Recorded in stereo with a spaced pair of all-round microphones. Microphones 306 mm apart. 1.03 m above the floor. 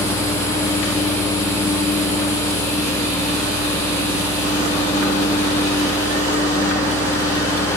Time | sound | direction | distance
0.0 | a fan | 10° left (ahead or behind) | 2.5 m